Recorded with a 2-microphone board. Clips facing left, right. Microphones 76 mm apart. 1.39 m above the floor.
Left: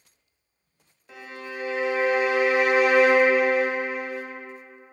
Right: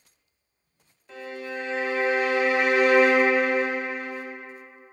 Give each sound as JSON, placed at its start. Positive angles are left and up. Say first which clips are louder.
{"t": 1.1, "sound": "a violin", "louder": "right 3 dB", "side_deg": 10, "distance_m": 0.5}